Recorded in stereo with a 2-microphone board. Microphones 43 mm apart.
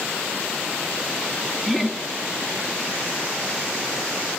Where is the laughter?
Centre (ahead or behind), 1.1 m.